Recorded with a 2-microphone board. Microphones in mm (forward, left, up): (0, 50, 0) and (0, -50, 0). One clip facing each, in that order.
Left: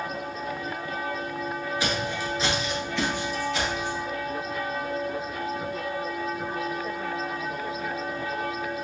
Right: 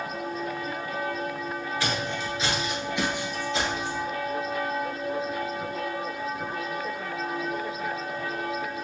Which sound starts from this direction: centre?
Footsteps, at 1.8 s.